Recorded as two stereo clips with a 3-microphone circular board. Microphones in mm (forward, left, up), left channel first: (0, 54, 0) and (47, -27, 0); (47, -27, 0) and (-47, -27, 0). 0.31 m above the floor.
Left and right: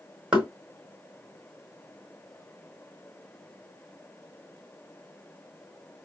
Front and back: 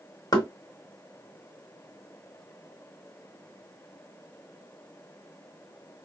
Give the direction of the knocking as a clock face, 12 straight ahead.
11 o'clock.